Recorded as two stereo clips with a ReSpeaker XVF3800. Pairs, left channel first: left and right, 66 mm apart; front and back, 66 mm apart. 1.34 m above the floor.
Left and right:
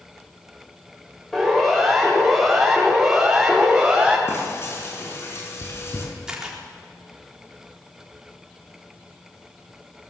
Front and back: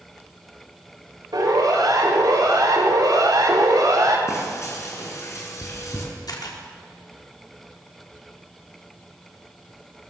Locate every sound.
1.3 s a siren: straight behind, 5.5 m; by 4.2 s 165° right, 4 m
4.3 s frying: 40° left, 6.5 m
6.3 s a camera shutter: 10° right, 4 m